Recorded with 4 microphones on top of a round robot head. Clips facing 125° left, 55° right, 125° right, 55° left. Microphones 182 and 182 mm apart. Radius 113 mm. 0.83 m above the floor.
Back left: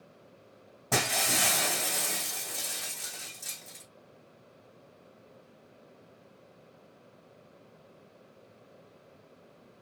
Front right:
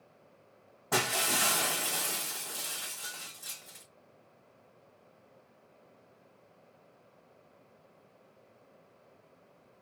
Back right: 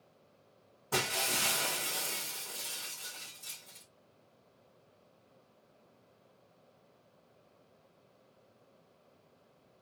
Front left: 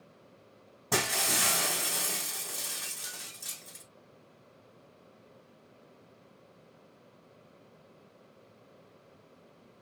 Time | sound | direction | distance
0.9 | breaking glass | 65° left | 2.5 m